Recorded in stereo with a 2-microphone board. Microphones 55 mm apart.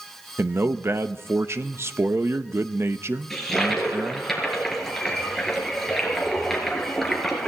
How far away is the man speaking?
About 0.7 m.